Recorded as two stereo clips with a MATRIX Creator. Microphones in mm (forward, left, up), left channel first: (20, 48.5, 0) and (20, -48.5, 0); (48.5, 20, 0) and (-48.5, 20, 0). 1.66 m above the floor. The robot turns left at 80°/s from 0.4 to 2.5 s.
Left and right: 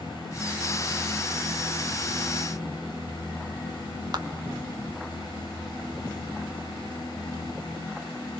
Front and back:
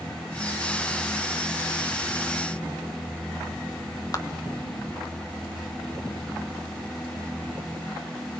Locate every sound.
4.1 s a clap: 45° right, 1.7 m